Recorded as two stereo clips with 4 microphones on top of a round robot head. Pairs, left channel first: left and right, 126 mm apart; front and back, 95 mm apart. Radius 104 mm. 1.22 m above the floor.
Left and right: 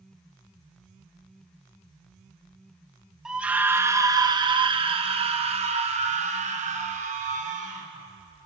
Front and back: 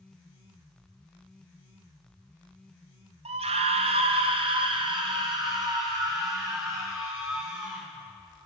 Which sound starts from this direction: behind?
A scream, at 3.2 s.